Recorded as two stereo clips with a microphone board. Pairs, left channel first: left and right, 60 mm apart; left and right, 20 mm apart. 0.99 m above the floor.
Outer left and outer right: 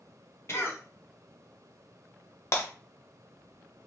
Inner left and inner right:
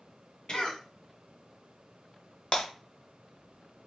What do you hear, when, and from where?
0.5 s a cough: 45° left (ahead or behind), 0.9 m
2.5 s breaking glass: 50° left (ahead or behind), 0.9 m